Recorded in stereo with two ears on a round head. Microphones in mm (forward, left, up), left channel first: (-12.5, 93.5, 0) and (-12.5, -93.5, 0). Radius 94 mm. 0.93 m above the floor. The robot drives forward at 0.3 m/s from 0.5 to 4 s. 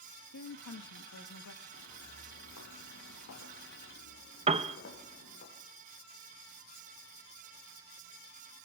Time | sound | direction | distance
0.3 | a woman speaking | 70° left (ahead or behind) | 1.1 m
1.7 | footsteps | 50° left (ahead or behind) | 2.5 m
4.5 | a piano | 30° right (ahead or behind) | 0.7 m